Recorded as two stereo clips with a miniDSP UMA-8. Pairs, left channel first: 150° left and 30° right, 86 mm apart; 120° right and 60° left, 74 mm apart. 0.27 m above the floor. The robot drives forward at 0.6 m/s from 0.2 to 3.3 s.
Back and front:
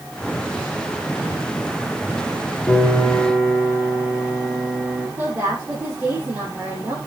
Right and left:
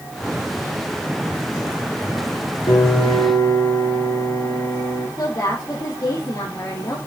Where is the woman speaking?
85° right, 7 m.